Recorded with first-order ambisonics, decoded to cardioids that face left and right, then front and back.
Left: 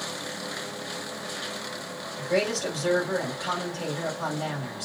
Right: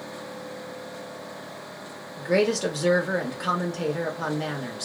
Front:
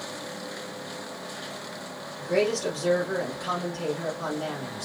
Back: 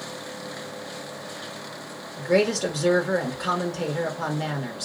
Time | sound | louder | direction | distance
2.2 | a woman speaking | right 3 dB, back 3 dB | 135° right | 1.6 m